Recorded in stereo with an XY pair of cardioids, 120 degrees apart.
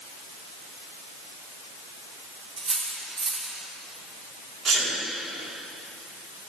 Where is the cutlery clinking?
35° right, 2 m.